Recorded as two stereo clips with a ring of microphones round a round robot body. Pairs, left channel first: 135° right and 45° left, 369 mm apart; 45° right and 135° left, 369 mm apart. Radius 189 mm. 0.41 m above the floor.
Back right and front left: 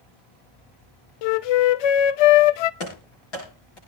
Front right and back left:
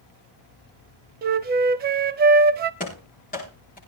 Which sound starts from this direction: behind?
A flute, at 1.2 s.